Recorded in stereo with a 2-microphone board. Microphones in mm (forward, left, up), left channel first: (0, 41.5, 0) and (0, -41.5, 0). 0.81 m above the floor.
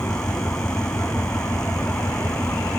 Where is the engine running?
25° left (ahead or behind).